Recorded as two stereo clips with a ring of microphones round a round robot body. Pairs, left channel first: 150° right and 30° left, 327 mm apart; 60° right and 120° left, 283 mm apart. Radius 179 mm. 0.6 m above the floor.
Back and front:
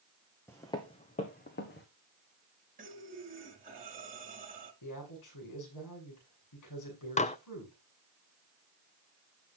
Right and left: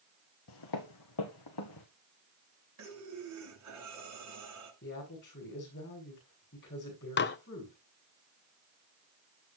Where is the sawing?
No sawing in this recording.